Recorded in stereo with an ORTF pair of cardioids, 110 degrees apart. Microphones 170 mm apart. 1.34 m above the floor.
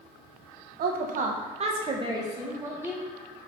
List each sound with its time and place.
0.8 s a woman speaking: 65° right, 1.2 m; by 3.1 s 10° right, 2 m